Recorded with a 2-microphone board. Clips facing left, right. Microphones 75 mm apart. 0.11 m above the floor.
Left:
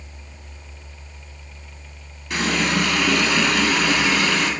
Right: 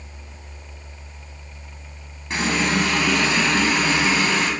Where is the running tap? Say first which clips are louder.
Even; 25° right (ahead or behind), 1.9 m.